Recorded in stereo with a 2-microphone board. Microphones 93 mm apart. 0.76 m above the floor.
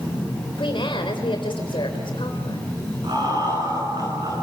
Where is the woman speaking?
60° left (ahead or behind), 3.5 m.